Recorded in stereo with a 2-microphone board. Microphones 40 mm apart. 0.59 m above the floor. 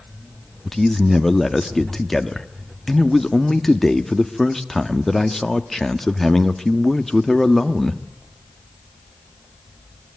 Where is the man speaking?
5° left (ahead or behind), 1.1 m.